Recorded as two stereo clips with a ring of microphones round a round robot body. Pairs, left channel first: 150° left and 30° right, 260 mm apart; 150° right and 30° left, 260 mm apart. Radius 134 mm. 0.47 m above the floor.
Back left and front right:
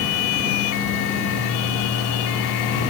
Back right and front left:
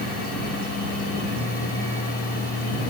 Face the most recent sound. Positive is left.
No sound to turn to.